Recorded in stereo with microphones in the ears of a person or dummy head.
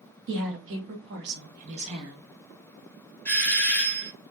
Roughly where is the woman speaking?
Right.